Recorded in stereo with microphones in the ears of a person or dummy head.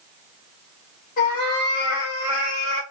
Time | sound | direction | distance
1.2 | a cat meowing | 50° left (ahead or behind) | 1.4 m